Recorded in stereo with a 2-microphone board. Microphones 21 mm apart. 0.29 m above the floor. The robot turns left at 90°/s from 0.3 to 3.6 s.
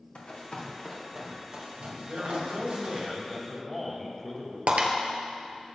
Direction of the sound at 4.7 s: 75° right (ahead or behind).